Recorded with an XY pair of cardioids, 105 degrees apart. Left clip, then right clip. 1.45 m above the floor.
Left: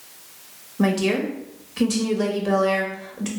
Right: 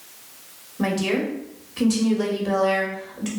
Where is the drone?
No drone in this recording.